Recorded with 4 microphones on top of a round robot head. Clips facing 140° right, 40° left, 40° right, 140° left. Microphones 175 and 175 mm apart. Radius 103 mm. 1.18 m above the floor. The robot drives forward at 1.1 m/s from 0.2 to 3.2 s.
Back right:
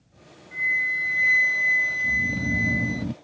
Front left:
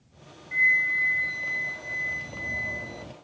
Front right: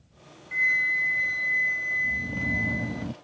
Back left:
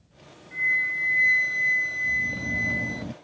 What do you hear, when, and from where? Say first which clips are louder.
0.5 s a flute: front left 2 dB, front right 1 dB; 25° right; by 3.0 s 175° right
2.0 s snoring: back right 15 dB, front right 3 dB; 115° right; by 3.1 s 125° right